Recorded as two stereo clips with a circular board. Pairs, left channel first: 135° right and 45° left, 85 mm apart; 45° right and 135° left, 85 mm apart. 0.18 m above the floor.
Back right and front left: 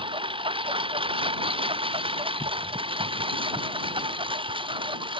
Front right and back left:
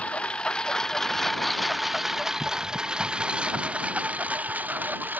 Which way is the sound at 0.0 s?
30° left.